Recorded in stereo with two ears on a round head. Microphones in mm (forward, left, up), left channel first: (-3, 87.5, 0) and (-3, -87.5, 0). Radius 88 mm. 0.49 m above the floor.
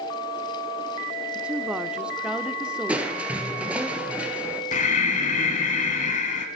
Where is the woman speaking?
5° right (ahead or behind), 0.7 m.